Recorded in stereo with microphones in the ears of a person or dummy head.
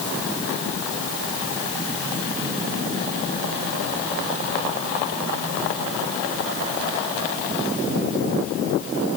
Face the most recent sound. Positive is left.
No sound to turn to.